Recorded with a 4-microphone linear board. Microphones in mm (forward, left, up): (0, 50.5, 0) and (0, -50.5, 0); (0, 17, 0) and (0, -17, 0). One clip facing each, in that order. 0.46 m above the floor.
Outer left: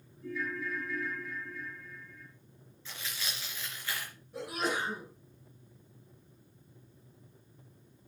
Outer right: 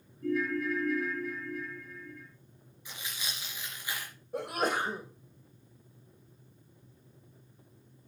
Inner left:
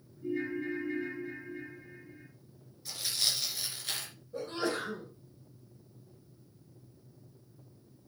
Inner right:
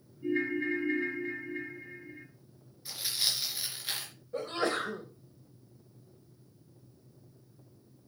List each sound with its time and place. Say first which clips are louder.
0.2 s a ringtone: outer right 7 dB, inner right 4 dB; 65° right (ahead or behind), 3.5 m
2.9 s tearing paper: even, even; 15° right (ahead or behind), 3 m
4.3 s a sneeze: outer right 3 dB, inner right 2 dB; 55° right (ahead or behind), 2.5 m